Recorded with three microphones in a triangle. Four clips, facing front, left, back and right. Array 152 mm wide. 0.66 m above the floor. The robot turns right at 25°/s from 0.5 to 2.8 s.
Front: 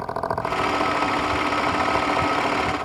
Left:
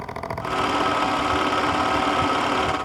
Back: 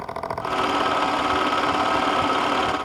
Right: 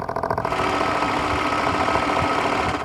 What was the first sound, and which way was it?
Only background noise.